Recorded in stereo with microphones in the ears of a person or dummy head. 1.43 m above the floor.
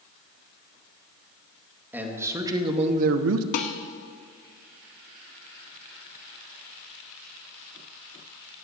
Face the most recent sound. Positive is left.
turn(degrees=50)  # may be behind; listen again after turning